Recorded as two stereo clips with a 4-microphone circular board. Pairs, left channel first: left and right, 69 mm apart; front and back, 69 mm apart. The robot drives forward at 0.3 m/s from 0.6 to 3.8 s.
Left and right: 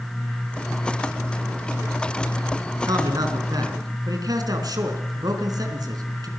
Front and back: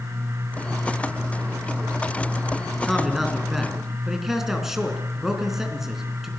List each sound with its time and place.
2.8 s a man speaking: 90° right, 4 m; by 6.3 s 95° right, 4 m